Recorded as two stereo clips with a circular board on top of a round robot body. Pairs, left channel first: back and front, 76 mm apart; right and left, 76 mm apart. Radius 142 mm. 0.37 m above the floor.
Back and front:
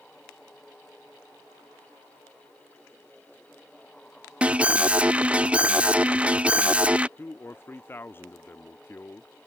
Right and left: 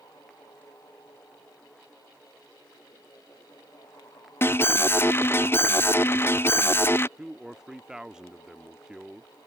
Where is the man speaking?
165° left.